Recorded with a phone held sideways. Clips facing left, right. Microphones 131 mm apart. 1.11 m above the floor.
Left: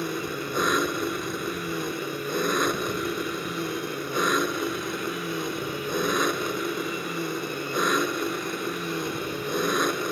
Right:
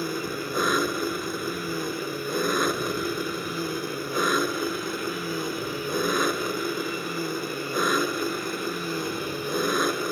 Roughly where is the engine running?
Centre.